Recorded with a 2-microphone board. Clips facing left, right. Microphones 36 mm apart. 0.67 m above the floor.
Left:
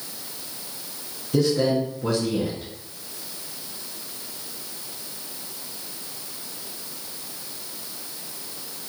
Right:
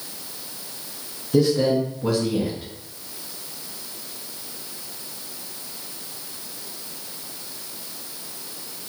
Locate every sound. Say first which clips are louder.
1.3 s a man speaking: right 2 dB; 5° right (ahead or behind), 0.6 m